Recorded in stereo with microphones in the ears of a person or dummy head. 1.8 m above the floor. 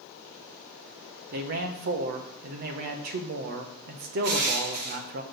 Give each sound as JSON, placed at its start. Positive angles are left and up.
{"t": 1.3, "sound": "a man speaking", "side_deg": -35, "distance_m": 0.6}
{"t": 4.2, "sound": "crushing", "side_deg": -40, "distance_m": 1.0}